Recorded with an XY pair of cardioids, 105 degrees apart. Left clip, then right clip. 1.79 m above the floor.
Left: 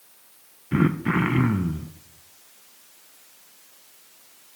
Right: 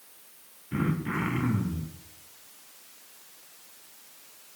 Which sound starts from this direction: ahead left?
Throat clearing, at 0.7 s.